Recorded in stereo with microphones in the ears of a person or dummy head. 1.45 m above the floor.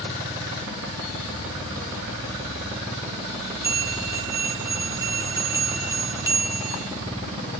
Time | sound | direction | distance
3.6 | a bell | 10° right (ahead or behind) | 1.1 m